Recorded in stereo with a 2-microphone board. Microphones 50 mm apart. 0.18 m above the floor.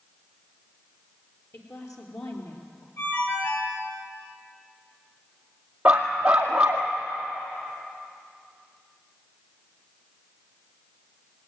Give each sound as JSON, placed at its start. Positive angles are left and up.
{"t": 1.5, "sound": "a woman speaking", "side_deg": 65, "distance_m": 4.0}
{"t": 3.0, "sound": "a ringtone", "side_deg": 55, "distance_m": 8.0}
{"t": 5.8, "sound": "a dog barking", "side_deg": -20, "distance_m": 2.0}